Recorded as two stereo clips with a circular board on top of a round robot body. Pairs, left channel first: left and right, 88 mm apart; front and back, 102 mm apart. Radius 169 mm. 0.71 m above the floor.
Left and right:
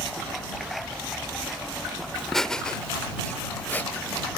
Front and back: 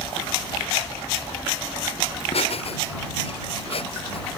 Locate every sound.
2.1 s laughter: straight ahead; by 4.3 s 20° left